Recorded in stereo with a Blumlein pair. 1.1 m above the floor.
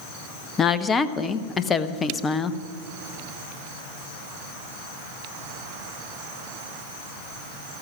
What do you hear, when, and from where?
0.6 s a woman speaking: 20° left, 0.7 m